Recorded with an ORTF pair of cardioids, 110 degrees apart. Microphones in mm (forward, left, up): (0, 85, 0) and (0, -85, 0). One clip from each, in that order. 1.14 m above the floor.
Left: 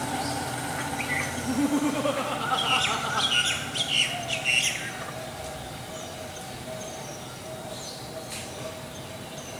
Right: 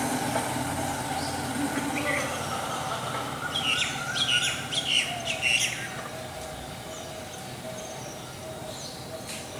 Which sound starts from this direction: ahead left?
Laughter, at 1.4 s.